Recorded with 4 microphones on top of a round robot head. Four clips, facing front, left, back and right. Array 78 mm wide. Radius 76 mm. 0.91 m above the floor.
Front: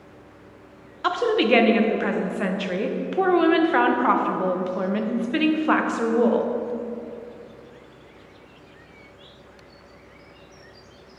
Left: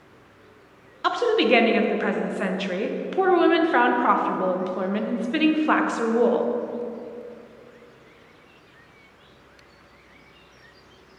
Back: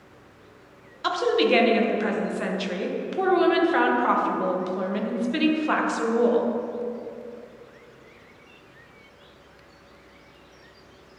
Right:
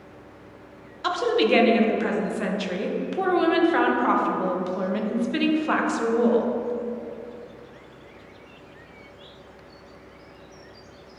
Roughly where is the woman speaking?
Ahead left.